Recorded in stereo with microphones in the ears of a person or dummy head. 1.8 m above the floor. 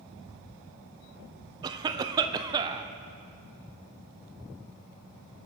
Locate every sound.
1.6 s a cough: 25° right (ahead or behind), 0.7 m